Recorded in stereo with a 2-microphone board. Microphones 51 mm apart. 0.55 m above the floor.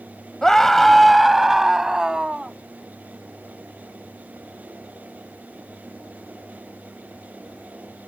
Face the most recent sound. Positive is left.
turn(degrees=-15)  # may be behind; listen again after turning